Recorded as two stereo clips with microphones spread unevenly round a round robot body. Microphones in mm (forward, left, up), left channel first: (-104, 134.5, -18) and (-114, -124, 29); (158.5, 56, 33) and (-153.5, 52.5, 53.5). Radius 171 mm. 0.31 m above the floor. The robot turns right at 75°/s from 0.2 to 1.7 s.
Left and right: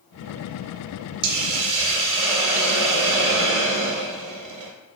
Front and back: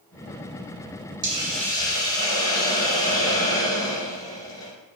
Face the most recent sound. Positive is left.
turn(degrees=-75)